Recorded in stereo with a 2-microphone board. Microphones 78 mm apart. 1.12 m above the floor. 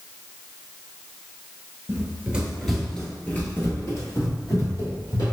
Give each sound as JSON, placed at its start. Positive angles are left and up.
{"t": 1.9, "sound": "running footsteps", "side_deg": -25, "distance_m": 1.2}